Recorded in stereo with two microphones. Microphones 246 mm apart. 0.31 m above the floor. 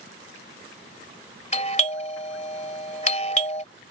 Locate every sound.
1.5 s a doorbell: 25° left (ahead or behind)